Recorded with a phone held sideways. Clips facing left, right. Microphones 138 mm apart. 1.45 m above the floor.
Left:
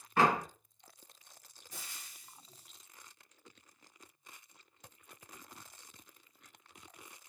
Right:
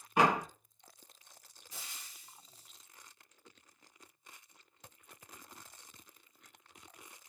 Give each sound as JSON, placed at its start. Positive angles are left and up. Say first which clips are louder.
{"t": 0.2, "sound": "a door slam", "louder": "even", "side_deg": -15, "distance_m": 0.9}
{"t": 1.7, "sound": "frying", "louder": "even", "side_deg": 50, "distance_m": 3.5}